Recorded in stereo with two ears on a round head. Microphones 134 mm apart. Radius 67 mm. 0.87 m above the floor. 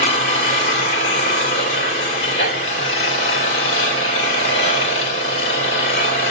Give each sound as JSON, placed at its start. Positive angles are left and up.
{"t": 0.0, "sound": "an engine running", "side_deg": 45, "distance_m": 2.5}